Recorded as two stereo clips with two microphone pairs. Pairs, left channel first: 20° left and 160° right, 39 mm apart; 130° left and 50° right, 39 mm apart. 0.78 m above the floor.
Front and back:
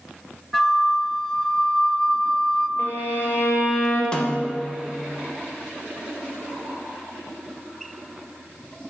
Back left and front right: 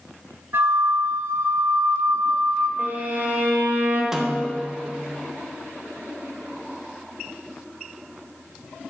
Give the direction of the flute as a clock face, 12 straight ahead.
2 o'clock.